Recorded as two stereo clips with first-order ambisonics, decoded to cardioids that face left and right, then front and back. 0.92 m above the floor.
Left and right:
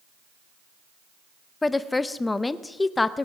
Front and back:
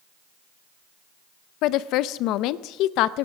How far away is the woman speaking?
About 0.5 m.